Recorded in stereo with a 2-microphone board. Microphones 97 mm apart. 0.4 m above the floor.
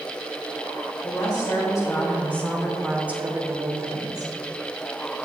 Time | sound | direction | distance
1.0 | a woman speaking | 45° left (ahead or behind) | 1.8 m